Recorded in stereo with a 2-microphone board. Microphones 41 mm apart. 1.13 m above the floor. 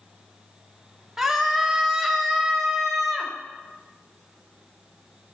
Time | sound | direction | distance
1.2 | a scream | 25° right (ahead or behind) | 1.7 m